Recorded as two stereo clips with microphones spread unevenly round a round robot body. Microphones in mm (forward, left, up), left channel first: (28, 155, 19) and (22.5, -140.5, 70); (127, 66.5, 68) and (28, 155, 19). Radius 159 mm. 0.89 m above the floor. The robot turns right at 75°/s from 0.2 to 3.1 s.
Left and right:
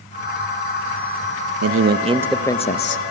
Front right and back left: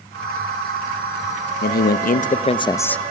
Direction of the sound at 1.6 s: 50° right.